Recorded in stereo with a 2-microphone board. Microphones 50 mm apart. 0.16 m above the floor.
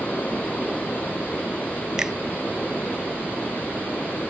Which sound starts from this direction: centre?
A finger snap, at 2.0 s.